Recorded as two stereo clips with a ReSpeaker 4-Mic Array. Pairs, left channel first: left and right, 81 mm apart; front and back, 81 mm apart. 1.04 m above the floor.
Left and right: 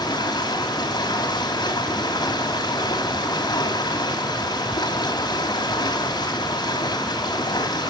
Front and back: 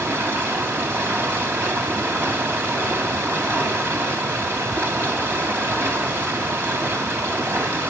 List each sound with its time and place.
0.0 s running water: 115° left, 2.5 m